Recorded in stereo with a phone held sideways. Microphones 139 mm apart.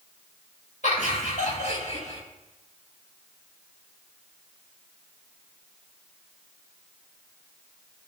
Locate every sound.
0.8 s laughter: 60° left (ahead or behind), 6 m